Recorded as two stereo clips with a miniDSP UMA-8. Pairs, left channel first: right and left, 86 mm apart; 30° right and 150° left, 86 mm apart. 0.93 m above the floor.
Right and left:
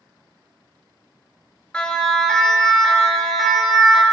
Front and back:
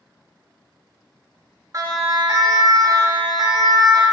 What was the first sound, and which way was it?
A siren, 165° right.